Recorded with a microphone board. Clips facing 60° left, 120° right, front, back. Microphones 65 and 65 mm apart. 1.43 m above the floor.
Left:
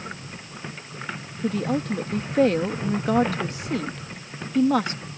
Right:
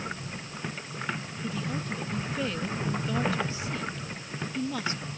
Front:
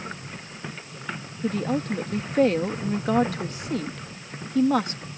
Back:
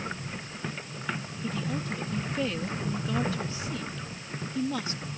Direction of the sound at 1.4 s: 35° left.